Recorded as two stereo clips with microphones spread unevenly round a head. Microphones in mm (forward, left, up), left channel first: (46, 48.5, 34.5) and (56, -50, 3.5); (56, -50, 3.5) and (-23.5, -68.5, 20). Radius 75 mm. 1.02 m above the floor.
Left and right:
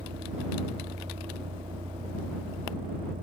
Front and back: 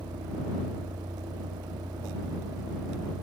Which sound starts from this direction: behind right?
A vehicle, at 0.0 s.